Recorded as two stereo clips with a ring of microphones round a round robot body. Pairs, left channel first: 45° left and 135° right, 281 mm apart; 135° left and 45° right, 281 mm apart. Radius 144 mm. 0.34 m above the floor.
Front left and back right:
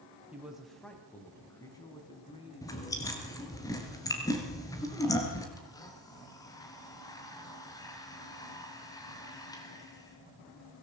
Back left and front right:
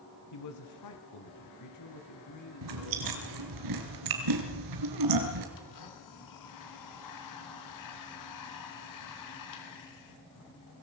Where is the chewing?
35° right, 3 m.